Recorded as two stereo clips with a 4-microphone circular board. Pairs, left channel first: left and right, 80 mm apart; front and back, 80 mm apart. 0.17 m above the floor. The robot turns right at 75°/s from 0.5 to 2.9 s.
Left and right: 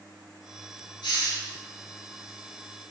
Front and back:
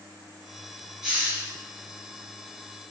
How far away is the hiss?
About 2.5 m.